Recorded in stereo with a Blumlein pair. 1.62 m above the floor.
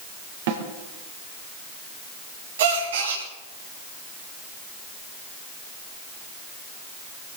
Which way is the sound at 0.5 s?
55° right.